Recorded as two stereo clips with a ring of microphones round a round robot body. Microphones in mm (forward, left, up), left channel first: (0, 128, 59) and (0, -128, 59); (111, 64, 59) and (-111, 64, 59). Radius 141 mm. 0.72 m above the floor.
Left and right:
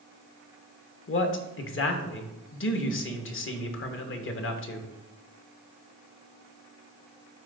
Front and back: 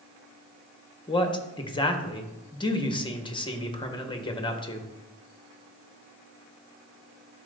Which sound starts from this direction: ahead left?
A man speaking, at 1.1 s.